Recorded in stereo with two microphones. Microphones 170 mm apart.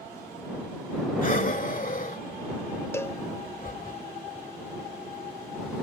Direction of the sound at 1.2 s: 50° left (ahead or behind).